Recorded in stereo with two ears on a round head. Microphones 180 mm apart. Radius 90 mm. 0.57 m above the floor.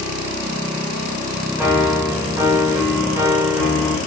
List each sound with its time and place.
1.6 s a piano: 10° right (ahead or behind), 0.9 m